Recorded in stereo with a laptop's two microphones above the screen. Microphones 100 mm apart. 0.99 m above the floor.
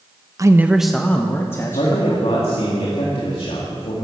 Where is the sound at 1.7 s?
70° left (ahead or behind), 2 m.